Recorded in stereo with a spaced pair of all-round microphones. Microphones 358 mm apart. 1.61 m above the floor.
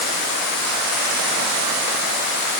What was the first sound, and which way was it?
Only background noise.